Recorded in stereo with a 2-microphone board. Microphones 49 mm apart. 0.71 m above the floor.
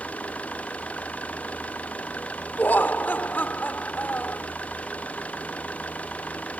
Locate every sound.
0.0 s an engine running: 25° left (ahead or behind)
2.6 s laughter: 40° left (ahead or behind)